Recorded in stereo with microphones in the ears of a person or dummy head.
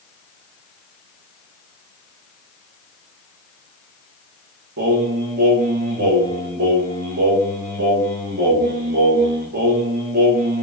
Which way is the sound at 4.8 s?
50° right (ahead or behind).